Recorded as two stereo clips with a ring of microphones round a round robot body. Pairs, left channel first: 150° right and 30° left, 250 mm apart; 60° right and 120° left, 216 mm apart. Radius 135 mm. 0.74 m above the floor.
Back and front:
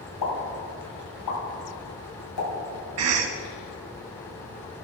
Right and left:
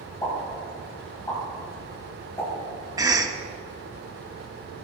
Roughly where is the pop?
Behind right.